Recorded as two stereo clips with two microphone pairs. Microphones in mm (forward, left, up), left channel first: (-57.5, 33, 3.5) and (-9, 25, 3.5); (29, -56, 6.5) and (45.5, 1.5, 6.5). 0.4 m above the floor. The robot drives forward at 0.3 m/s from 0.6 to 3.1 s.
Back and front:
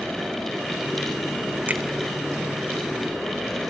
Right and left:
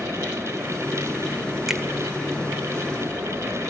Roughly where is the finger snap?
Ahead.